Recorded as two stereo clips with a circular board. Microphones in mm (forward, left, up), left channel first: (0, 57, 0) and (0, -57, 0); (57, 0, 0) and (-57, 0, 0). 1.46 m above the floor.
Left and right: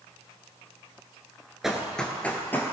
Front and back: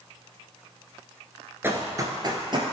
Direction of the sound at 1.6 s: 170° right.